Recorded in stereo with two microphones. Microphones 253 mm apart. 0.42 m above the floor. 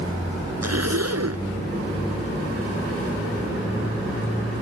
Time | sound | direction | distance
0.6 | a zipper | 75° right (ahead or behind) | ?